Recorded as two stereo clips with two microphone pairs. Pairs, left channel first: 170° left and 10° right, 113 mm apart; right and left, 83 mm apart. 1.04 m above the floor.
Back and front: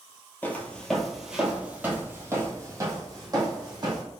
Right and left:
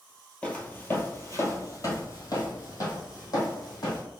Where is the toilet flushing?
No toilet flushing in this recording.